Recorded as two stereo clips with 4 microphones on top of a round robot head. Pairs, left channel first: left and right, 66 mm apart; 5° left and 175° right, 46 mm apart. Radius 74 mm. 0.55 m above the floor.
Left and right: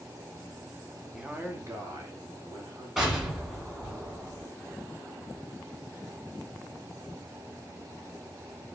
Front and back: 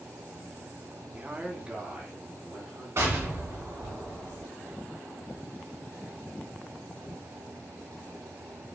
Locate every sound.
1.1 s a man speaking: 160° right, 0.7 m; by 2.9 s 105° right, 2 m
3.0 s an explosion: 175° right, 1.8 m